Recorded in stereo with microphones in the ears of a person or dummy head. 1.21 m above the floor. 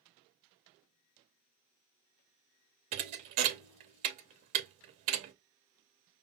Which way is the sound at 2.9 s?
35° right (ahead or behind).